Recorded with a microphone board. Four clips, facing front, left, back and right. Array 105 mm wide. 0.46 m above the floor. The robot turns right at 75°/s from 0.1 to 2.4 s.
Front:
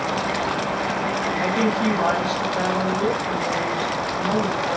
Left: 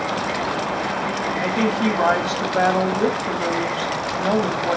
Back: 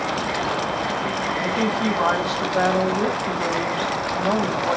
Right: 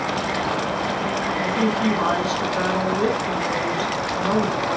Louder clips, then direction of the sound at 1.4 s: Left 1 dB, front 2 dB; 40° left.